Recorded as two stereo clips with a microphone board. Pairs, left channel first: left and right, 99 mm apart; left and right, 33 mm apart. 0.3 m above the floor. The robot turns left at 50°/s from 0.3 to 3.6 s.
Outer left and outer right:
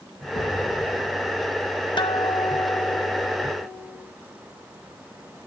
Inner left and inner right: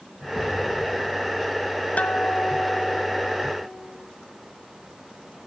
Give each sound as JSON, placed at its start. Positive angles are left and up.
{"t": 0.3, "sound": "an explosion", "azimuth_deg": 100, "distance_m": 5.5}
{"t": 2.0, "sound": "a guitar", "azimuth_deg": 70, "distance_m": 1.3}